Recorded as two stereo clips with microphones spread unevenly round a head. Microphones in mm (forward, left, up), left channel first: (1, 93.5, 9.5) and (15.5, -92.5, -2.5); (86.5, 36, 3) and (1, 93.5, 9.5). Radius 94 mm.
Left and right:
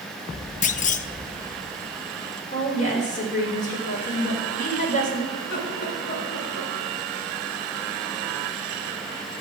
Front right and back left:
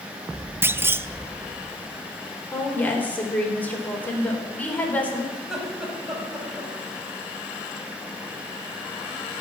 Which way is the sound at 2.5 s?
40° left.